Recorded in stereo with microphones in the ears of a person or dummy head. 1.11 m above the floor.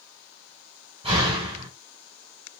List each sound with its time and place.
1.0 s a door slam: 30° right (ahead or behind), 3 m